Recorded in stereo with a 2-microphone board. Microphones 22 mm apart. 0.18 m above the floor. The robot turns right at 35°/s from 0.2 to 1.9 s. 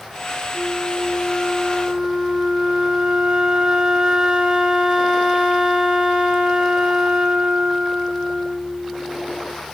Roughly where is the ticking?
I don't hear ticking.